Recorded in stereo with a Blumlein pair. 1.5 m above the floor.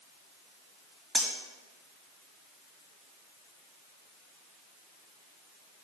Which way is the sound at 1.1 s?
Straight ahead.